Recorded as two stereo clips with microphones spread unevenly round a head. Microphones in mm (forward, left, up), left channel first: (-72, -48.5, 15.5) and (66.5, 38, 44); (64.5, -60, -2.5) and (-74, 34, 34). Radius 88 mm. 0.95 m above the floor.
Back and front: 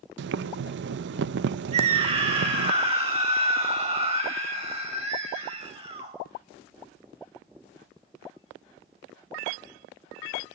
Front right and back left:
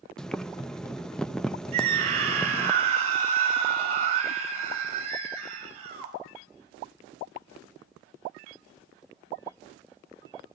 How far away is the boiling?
About 0.5 m.